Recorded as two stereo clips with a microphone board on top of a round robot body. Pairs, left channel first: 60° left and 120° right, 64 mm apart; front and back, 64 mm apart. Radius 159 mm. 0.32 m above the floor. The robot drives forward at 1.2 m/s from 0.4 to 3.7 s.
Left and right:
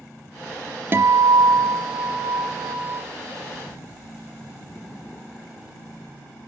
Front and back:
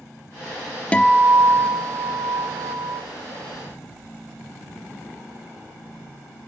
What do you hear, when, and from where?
0.9 s a guitar: 70° right, 0.5 m; by 3.0 s 170° right, 2.5 m